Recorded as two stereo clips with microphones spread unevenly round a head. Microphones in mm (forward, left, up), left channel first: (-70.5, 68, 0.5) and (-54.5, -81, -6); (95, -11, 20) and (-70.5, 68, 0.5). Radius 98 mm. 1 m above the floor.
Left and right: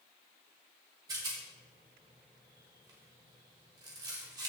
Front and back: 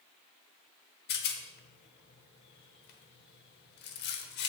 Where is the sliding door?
I don't hear a sliding door.